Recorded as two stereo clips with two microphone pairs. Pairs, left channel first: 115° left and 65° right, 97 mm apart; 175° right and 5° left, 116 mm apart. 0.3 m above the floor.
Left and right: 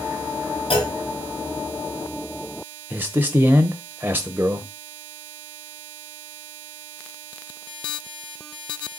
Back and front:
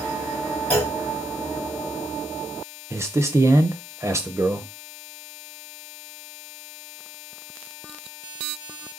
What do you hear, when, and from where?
0.7 s a clunk: 110° left, 3 m
2.9 s a man speaking: 25° right, 0.9 m